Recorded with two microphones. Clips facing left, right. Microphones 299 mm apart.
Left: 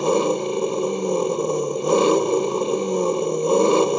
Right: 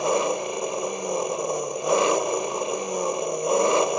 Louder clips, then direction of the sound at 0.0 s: Left 5 dB; 45° left (ahead or behind).